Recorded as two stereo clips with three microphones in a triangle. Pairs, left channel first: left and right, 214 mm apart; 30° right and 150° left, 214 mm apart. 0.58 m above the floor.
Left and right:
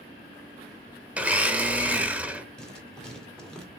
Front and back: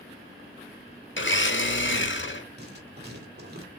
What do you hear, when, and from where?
1.2 s a blender: 5° right, 0.9 m
2.6 s writing: 175° left, 2 m